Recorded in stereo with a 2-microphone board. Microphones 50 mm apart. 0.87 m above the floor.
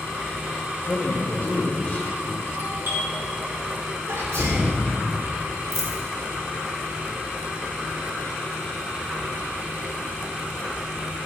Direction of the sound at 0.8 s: 30° left (ahead or behind).